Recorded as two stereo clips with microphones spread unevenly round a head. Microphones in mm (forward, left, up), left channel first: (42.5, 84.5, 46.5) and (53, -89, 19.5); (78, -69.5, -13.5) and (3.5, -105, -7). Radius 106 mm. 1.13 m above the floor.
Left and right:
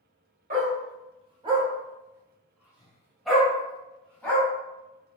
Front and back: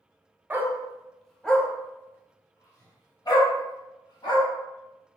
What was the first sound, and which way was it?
A dog barking, 115° right.